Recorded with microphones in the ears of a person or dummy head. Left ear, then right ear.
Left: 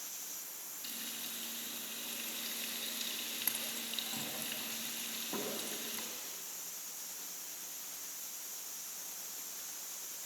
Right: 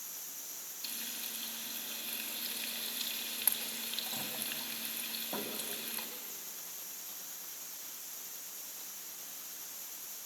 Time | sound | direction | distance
0.8 | frying | 25° right (ahead or behind) | 2.5 m